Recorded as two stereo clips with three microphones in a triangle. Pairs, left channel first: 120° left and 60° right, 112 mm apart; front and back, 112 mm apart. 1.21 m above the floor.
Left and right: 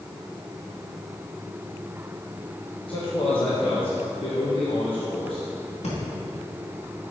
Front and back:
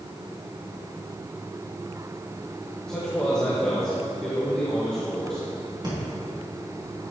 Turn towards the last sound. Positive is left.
turn(degrees=130)